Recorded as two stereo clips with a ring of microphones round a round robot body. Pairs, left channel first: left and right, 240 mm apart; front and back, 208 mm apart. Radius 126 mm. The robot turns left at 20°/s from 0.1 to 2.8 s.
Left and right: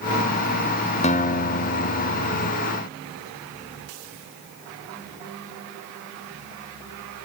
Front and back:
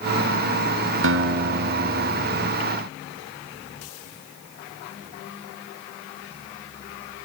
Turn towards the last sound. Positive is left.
turn(degrees=120)